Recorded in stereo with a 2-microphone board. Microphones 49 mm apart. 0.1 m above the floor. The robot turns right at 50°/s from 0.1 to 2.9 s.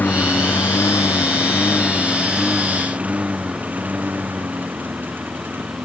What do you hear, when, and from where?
0.0 s a lawn mower: 35° left (ahead or behind); by 5.8 s 40° right (ahead or behind)